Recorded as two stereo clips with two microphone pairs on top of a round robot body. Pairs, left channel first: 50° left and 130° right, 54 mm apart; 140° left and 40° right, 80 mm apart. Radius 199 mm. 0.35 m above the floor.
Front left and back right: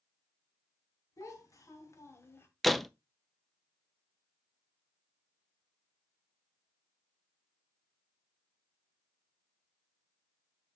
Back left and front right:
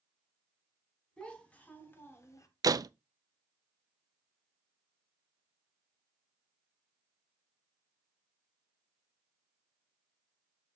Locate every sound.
1.2 s a child speaking: 65° left, 2.5 m; by 2.5 s 95° left, 1.7 m
2.6 s a door slam: 40° right, 0.6 m